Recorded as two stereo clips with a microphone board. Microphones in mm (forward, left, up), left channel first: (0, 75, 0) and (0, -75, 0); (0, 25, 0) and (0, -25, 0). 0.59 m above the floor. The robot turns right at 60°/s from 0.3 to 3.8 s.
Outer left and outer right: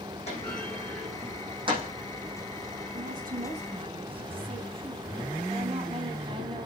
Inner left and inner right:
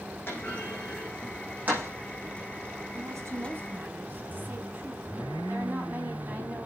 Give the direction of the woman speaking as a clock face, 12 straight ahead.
3 o'clock.